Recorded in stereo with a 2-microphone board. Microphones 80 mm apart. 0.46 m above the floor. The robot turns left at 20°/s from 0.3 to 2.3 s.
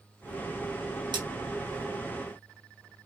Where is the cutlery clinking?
75° right (ahead or behind), 1.2 m.